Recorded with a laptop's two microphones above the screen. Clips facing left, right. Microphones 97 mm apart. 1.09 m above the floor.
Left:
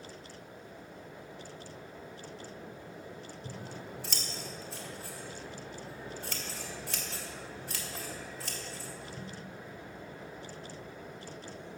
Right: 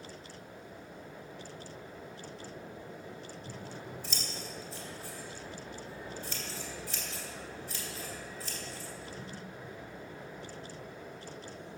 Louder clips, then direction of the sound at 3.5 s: Left 2 dB; 65° left (ahead or behind).